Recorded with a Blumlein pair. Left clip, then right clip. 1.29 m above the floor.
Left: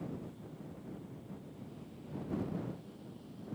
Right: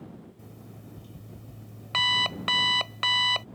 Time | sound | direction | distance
0.4 | an alarm clock | 45° right | ?